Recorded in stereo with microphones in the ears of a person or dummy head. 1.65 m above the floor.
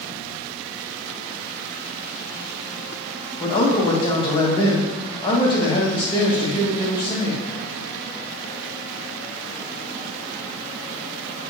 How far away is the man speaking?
About 0.6 m.